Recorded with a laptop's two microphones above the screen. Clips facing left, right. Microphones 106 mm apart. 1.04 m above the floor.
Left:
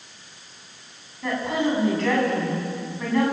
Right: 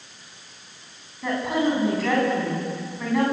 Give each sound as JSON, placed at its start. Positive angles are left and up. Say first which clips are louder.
{"t": 1.2, "sound": "a woman speaking", "louder": "right 1 dB", "side_deg": -5, "distance_m": 8.5}